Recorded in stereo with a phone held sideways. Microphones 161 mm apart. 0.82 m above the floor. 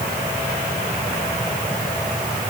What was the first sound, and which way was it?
Only background noise.